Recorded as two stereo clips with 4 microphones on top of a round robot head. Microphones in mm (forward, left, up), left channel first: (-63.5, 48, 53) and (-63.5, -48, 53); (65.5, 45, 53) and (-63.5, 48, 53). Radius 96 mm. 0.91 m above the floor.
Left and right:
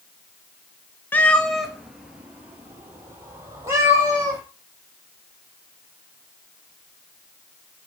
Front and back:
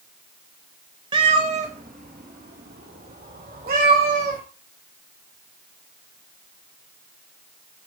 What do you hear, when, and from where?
1.1 s a cat meowing: 150° left, 1.0 m; by 4.4 s 150° right, 3 m